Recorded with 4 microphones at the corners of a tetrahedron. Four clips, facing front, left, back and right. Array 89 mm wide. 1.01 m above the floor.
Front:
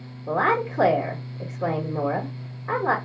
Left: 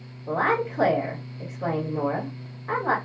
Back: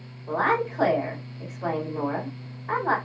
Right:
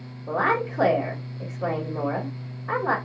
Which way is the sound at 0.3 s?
10° left.